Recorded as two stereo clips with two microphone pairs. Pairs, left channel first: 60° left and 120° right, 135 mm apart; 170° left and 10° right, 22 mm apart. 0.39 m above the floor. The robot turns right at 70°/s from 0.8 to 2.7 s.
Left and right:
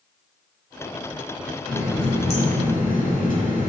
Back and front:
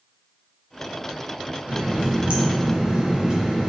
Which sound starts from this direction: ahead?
A running tap, at 1.7 s.